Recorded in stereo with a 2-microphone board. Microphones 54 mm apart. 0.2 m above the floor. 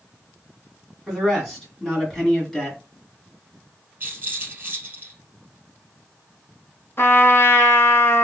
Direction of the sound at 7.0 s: 50° left (ahead or behind).